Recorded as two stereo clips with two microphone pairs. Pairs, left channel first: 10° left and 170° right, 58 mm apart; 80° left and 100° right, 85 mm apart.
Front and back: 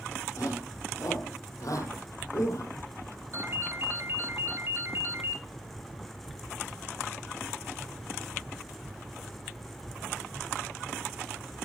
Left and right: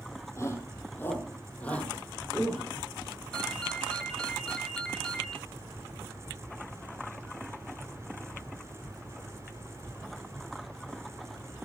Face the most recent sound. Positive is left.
turn(degrees=160)